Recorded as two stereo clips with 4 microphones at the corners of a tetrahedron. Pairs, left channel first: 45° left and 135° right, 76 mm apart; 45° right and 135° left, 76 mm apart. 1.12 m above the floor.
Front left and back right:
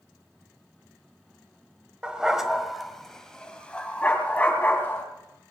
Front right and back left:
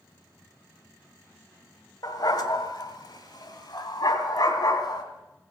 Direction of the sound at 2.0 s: 60° right.